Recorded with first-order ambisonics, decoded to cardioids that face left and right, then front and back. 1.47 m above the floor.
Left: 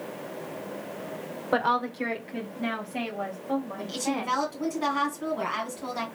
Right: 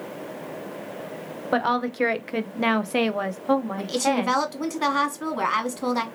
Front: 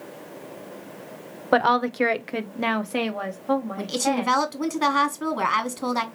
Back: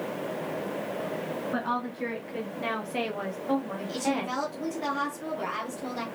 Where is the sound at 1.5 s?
5° right, 0.7 m; by 4.3 s 90° right, 1.5 m.